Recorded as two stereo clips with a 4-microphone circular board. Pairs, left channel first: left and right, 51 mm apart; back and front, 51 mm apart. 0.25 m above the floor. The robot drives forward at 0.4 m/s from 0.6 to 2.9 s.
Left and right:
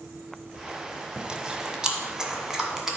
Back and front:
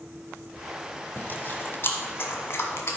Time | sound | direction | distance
1.2 | chewing | 150° right | 0.9 m